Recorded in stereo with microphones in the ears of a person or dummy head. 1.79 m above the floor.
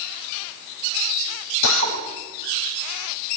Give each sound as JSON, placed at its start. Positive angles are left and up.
{"t": 1.6, "sound": "a drill", "side_deg": 80, "distance_m": 6.5}